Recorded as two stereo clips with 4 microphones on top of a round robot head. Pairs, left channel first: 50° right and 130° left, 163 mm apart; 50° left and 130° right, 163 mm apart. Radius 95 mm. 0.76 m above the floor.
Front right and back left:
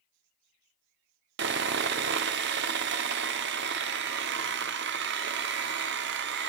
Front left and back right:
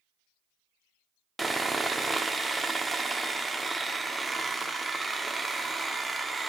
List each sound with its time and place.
1.4 s sawing: 140° left, 0.6 m